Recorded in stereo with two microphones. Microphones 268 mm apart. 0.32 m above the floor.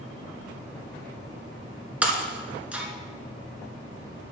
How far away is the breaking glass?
About 1.4 m.